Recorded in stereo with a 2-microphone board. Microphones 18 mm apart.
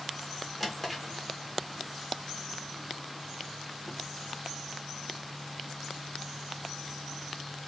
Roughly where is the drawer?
Centre.